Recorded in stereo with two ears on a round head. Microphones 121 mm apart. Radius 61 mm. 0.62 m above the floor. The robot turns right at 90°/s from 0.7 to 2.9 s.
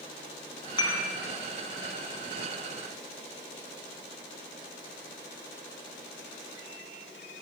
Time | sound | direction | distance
0.8 | dishes clattering | 35° left (ahead or behind) | 4 m